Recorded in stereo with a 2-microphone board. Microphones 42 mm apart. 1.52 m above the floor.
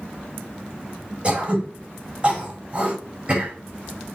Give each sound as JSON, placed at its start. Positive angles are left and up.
{"t": 1.2, "sound": "throat clearing", "side_deg": -25, "distance_m": 5.0}